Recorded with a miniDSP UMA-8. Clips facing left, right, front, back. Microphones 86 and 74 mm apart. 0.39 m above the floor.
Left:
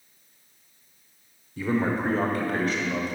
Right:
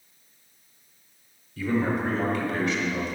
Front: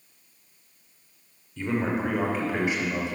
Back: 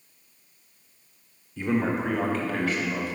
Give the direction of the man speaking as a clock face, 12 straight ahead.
8 o'clock.